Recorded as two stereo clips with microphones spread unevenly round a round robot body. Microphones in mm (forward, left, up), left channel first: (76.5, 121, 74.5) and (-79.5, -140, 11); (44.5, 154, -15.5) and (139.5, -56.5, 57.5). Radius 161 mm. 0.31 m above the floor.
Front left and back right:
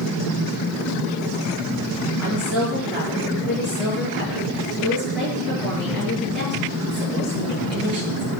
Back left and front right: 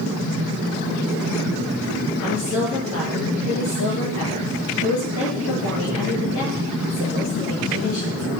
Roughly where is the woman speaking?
Behind left.